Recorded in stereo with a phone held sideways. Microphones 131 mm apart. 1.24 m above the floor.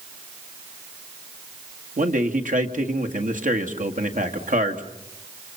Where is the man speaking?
85° right, 1.8 m.